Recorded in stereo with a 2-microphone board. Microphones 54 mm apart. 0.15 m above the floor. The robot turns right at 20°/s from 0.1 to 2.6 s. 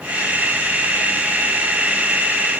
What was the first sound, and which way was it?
Only background noise.